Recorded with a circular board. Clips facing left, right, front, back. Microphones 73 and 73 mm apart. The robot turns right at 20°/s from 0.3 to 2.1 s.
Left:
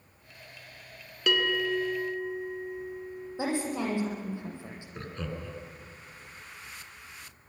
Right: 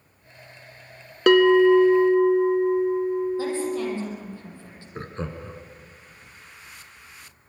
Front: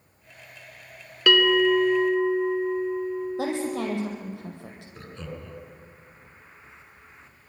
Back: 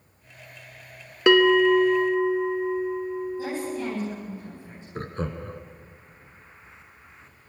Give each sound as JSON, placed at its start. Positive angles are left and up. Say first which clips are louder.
{"t": 1.3, "sound": "a bell", "louder": "right 14 dB, back 3 dB", "azimuth_deg": -115, "distance_m": 0.9}
{"t": 3.4, "sound": "a woman speaking", "louder": "right 4 dB, front 2 dB", "azimuth_deg": 15, "distance_m": 7.0}
{"t": 5.0, "sound": "laughter", "louder": "right 5 dB, back 8 dB", "azimuth_deg": -145, "distance_m": 2.5}